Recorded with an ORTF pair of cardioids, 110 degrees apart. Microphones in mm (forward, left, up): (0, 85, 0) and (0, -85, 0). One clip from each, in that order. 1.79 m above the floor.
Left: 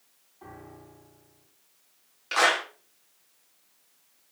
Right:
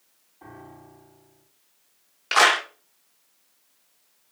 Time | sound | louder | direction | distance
0.4 | a piano | right 2 dB | 15° right | 5 m
2.3 | a clap | right 5 dB | 50° right | 1.6 m